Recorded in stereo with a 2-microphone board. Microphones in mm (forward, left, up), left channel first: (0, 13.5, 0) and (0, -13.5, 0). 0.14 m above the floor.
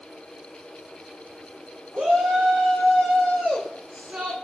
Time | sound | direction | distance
1.9 | a shout | 60° right (ahead or behind) | 8.5 m